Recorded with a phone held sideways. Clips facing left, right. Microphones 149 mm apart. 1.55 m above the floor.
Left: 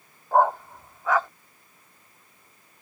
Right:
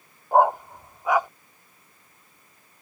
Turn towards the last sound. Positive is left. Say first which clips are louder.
# right 2 dB
turn(degrees=-15)  # may be behind; listen again after turning